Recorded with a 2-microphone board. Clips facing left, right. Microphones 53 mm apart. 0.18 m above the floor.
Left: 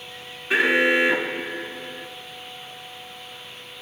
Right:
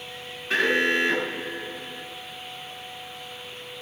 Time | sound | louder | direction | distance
0.5 | an alarm | left 3 dB | 10° left (ahead or behind) | 2 m